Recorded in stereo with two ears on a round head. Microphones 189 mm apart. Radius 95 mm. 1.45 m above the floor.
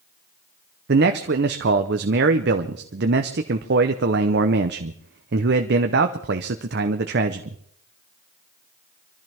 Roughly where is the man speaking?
Right.